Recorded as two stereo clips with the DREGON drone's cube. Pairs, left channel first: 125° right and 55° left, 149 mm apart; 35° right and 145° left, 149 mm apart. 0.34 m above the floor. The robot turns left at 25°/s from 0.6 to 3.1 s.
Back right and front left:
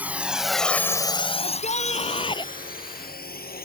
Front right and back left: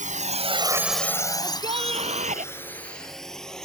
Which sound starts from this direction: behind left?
A drone, at 0.0 s.